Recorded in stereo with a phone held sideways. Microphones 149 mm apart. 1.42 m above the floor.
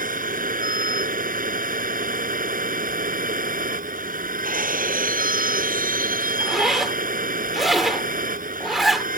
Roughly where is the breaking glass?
Right.